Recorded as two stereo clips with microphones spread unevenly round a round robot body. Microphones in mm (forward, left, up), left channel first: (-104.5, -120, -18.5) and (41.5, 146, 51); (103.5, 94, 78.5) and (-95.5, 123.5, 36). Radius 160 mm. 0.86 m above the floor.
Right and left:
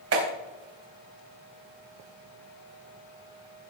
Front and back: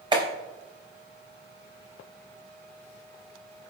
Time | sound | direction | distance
0.1 | a clap | 105° left | 3.5 m